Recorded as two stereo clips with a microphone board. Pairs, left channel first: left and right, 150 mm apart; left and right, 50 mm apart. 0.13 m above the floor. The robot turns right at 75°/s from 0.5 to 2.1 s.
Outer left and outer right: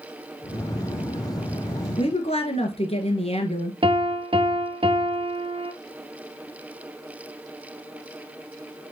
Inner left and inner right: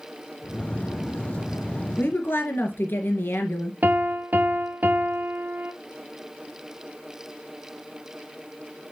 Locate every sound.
2.0 s a woman speaking: 35° left (ahead or behind), 2 m; by 3.7 s 45° left (ahead or behind), 2 m
3.8 s a piano: 35° right (ahead or behind), 1.0 m